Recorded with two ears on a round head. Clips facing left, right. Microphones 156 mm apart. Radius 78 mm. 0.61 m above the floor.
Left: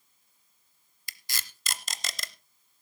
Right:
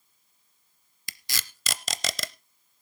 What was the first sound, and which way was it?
Tape being pulled, 60° right (ahead or behind).